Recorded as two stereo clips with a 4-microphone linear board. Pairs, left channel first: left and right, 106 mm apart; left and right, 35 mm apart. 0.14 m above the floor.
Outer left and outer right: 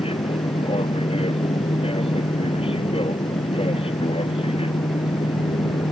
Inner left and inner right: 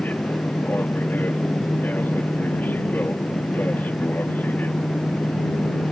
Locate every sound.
0.0 s an aircraft: 60° left (ahead or behind)